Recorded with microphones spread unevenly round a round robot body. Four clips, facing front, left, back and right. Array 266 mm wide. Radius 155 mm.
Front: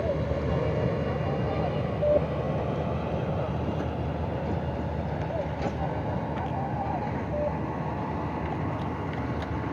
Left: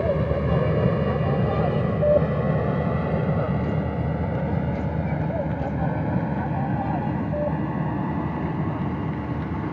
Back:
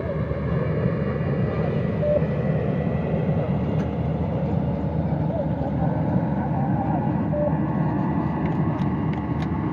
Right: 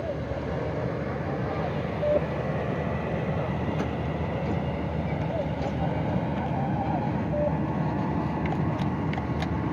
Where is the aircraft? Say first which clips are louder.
Left 8 dB, back 1 dB; 130° left; by 9.7 s 175° left.